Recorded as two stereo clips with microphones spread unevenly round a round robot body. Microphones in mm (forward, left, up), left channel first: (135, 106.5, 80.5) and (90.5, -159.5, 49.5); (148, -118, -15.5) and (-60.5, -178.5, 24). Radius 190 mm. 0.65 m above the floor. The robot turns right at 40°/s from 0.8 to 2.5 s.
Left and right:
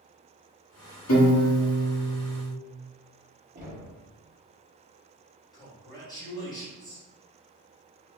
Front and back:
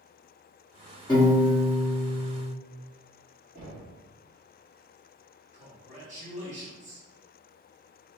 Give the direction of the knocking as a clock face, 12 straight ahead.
4 o'clock.